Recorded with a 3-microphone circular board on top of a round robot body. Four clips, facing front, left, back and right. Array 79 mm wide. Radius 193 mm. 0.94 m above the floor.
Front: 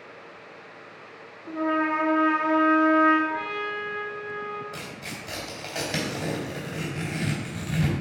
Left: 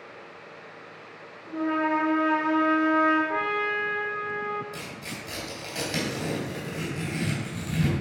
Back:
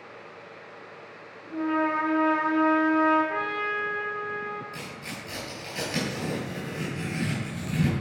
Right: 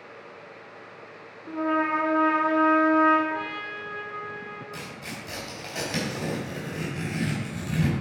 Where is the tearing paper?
25° right, 3 m.